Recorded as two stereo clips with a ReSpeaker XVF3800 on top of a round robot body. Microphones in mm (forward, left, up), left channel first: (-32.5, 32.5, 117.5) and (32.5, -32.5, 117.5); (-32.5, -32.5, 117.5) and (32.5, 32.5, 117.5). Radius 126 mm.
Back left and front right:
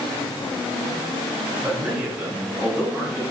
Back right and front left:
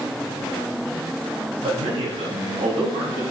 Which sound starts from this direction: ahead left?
A man speaking, at 1.6 s.